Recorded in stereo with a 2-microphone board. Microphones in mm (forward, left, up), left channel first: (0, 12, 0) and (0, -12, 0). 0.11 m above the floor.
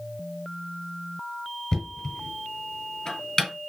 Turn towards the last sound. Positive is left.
turn(degrees=25)  # may be behind; listen again after turning